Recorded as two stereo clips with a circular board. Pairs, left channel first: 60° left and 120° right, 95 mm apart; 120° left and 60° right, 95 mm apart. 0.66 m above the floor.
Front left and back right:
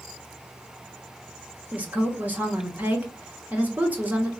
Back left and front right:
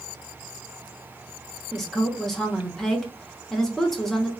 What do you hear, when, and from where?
1.7 s a woman speaking: 160° right, 0.9 m